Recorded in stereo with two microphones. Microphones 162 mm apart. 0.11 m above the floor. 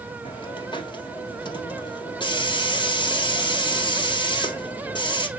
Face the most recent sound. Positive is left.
turn(degrees=30)  # may be behind; listen again after turning